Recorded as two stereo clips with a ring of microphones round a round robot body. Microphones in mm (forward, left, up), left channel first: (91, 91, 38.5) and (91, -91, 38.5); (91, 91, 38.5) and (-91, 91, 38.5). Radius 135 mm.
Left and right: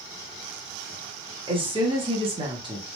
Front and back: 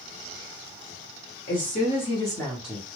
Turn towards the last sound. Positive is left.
turn(degrees=-120)